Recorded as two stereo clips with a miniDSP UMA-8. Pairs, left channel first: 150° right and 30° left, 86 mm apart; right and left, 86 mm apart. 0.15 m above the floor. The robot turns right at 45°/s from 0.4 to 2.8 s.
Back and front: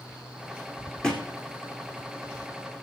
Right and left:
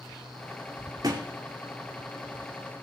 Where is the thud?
130° left, 2.5 m; by 1.3 s 145° left, 2.5 m.